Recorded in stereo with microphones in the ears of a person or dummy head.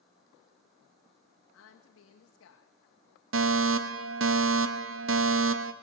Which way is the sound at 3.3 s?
70° right (ahead or behind).